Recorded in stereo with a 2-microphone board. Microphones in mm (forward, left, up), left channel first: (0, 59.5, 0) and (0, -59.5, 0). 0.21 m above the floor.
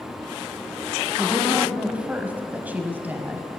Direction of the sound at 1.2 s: 5° right (ahead or behind).